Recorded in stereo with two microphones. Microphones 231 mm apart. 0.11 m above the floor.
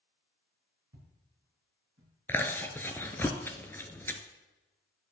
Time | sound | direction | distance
0.9 | footsteps | 80° right | 3 m
2.3 | chewing | 10° left (ahead or behind) | 0.5 m